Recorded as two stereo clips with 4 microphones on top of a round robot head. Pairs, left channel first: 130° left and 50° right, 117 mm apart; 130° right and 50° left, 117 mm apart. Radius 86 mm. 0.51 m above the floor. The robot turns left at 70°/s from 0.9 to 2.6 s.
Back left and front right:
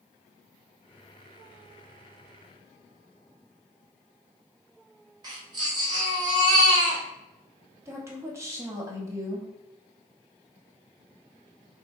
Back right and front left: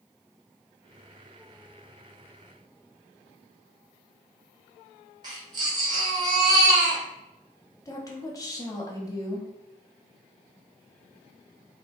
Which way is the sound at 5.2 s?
Straight ahead.